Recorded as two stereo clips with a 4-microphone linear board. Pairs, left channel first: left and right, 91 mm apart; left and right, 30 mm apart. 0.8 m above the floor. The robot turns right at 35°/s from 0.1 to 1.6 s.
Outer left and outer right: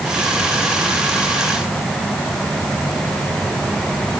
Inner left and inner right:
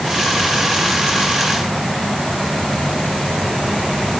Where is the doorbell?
I don't hear a doorbell.